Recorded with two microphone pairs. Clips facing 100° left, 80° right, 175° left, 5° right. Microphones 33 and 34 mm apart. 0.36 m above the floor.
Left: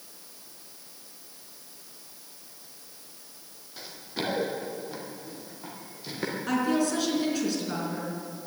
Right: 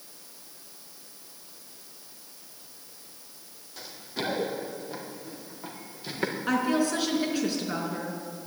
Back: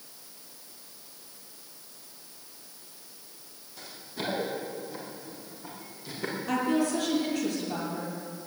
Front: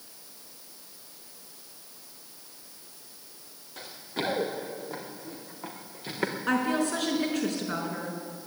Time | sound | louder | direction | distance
3.8 | running footsteps | even, front 4 dB | 20° left | 4.5 m
6.5 | a woman speaking | even, back 1 dB | 10° right | 4.5 m